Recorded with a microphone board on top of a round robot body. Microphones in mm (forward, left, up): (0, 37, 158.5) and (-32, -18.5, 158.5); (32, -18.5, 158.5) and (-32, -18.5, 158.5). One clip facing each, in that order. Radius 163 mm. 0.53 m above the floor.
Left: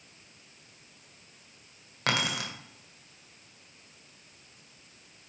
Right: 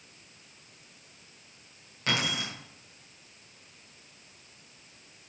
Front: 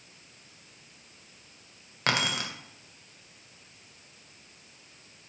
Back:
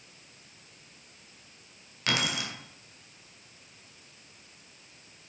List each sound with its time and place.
2.1 s keys jangling: 40° left, 1.9 m